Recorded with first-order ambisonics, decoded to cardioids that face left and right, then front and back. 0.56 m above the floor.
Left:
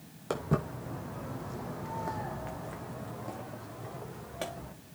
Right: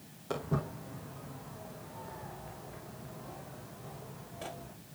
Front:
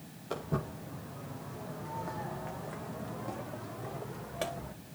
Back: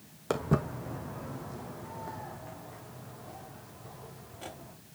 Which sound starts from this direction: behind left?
Footsteps, at 0.3 s.